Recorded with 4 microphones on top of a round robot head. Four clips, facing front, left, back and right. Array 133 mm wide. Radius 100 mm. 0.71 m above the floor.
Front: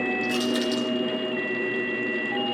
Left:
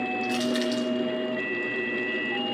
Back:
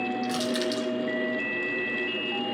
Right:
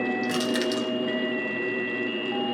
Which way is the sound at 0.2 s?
95° right.